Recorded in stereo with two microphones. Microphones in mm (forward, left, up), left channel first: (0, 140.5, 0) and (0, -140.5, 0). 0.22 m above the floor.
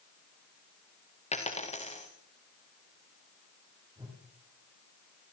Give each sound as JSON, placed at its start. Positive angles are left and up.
{"t": 1.3, "sound": "a dropped coin", "side_deg": 25, "distance_m": 4.0}
{"t": 4.0, "sound": "a whoosh", "side_deg": -15, "distance_m": 7.0}